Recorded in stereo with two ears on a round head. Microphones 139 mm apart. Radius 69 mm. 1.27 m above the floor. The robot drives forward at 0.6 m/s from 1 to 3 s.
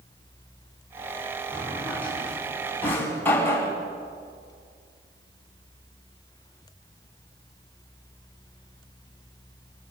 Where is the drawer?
10° left (ahead or behind), 5.5 m; by 3.7 s 15° left (ahead or behind), 4.5 m.